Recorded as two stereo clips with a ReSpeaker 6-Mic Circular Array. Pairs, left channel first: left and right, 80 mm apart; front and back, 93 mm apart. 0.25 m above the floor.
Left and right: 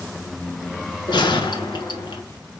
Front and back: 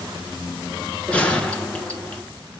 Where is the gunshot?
75° left, 1.0 m.